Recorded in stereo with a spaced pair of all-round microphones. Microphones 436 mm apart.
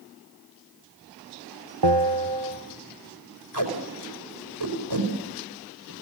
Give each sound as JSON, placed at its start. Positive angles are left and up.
{"t": 1.8, "sound": "a bell", "side_deg": -70, "distance_m": 1.1}
{"t": 3.5, "sound": "tape being pulled", "side_deg": -70, "distance_m": 5.0}